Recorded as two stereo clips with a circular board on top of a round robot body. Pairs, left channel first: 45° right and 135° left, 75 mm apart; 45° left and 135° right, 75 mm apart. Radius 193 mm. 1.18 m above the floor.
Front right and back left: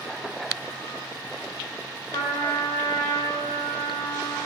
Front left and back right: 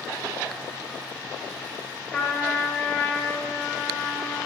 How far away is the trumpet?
About 1.2 m.